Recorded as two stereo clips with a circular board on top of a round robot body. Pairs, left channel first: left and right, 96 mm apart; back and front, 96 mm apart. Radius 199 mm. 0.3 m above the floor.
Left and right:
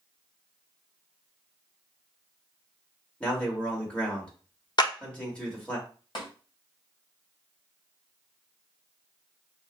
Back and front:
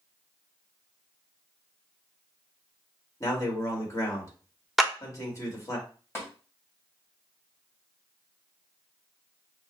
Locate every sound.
3.2 s a man speaking: 160° left, 1.8 m
4.8 s a clap: 90° left, 0.9 m
6.2 s tapping: 120° left, 2 m